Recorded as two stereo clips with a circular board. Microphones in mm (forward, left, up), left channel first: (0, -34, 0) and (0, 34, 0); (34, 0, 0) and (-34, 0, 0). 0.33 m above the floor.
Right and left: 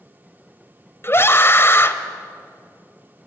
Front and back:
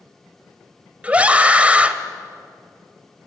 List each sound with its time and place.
1.0 s a scream: 120° right, 1.3 m